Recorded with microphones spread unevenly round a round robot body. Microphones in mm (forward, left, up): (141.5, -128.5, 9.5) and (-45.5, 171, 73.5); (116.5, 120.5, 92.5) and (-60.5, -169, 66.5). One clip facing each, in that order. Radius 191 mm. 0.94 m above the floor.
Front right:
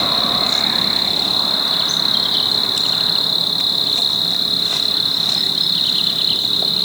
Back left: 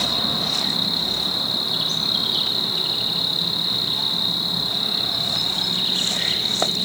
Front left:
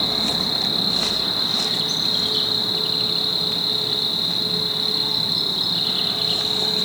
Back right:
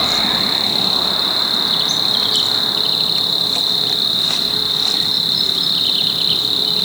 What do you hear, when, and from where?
0.0 s an insect: 70° right, 2 m